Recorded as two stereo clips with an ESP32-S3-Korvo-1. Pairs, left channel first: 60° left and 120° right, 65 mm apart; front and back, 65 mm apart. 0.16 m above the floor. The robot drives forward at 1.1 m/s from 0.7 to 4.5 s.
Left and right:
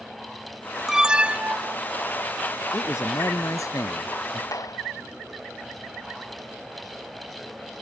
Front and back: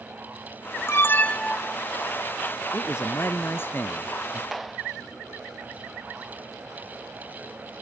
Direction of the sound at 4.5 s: 90° left.